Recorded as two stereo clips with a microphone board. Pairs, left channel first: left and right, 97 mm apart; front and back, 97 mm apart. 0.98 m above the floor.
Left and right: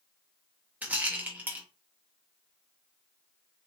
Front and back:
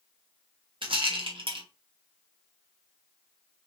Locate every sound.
0.8 s a rattle: 160° right, 1.0 m